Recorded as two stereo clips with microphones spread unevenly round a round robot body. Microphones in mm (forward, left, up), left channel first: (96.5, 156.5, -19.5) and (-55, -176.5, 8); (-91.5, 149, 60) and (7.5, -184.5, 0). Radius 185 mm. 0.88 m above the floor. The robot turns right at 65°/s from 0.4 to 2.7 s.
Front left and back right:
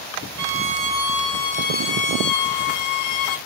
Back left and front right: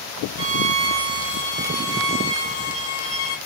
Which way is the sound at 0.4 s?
85° right.